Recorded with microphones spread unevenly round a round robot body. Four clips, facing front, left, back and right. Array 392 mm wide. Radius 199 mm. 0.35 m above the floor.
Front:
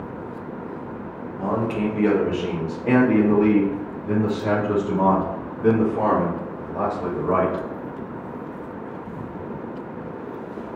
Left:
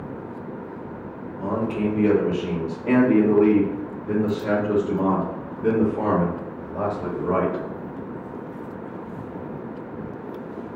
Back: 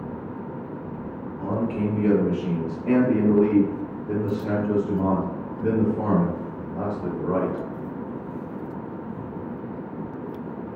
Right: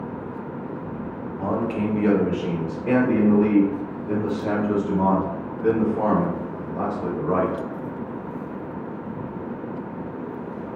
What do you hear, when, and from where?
1.4 s a man speaking: 50° right, 1.7 m; by 7.6 s 5° left, 4 m